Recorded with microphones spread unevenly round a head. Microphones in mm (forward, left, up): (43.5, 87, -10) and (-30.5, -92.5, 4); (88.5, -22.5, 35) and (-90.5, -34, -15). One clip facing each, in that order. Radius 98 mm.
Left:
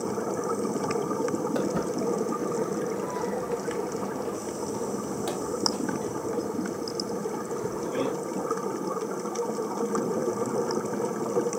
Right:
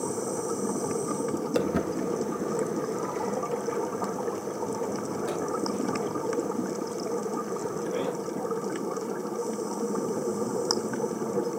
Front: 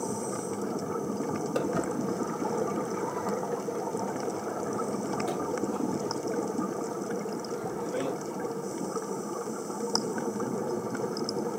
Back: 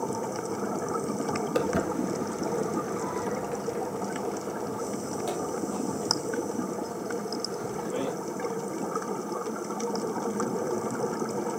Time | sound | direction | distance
1.6 | footsteps | 105° right | 1.7 m